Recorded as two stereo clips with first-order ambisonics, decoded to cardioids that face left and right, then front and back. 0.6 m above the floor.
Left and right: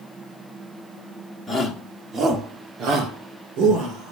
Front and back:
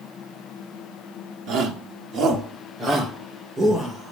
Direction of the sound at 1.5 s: 170° right.